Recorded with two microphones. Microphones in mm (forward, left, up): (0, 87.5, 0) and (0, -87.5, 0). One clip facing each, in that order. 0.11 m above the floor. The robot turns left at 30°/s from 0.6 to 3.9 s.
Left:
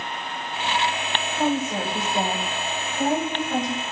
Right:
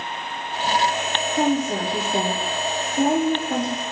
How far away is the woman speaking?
About 7 m.